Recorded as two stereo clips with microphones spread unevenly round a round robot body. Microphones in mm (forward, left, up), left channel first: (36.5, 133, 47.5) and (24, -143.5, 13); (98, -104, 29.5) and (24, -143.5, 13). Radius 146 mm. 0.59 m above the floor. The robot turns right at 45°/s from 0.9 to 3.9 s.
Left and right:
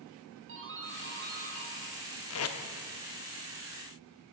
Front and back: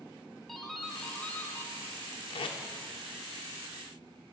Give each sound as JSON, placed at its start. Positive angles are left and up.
{"t": 0.5, "sound": "a doorbell", "azimuth_deg": -65, "distance_m": 2.5}
{"t": 2.3, "sound": "tape being pulled", "azimuth_deg": 50, "distance_m": 1.1}